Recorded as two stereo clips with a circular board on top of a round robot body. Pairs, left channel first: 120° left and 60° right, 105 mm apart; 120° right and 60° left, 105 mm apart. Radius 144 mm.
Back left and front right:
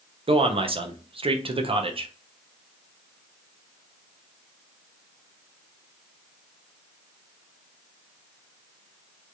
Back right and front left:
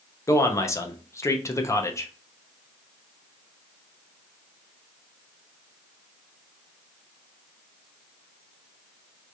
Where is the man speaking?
65° right, 0.8 m.